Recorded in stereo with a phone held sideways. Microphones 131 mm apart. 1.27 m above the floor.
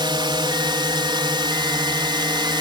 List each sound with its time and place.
0.0 s a drone: 35° right (ahead or behind)